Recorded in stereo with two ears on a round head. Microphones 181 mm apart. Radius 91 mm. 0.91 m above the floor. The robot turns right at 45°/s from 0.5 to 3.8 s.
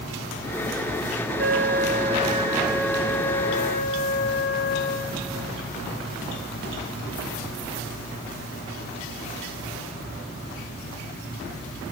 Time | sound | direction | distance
1.4 | a flute | 70° right | 2.5 m